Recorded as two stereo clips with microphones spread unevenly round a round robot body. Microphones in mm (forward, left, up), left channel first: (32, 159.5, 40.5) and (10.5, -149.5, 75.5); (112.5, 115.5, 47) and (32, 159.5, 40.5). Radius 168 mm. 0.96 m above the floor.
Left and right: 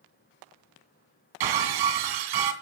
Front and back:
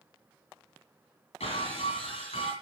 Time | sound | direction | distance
1.4 | breaking glass | 90° right | 2 m